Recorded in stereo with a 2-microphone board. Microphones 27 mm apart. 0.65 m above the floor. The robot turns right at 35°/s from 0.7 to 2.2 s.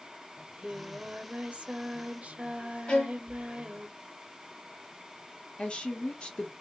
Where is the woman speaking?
40° left (ahead or behind), 0.8 m.